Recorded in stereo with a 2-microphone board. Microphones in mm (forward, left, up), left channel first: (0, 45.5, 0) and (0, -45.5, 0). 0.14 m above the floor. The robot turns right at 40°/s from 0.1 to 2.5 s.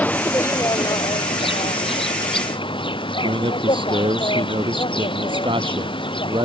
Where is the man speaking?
65° right (ahead or behind).